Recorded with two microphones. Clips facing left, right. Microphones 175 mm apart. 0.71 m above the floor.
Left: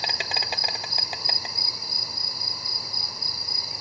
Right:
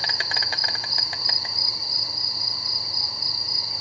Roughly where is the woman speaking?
No woman speaking in this recording.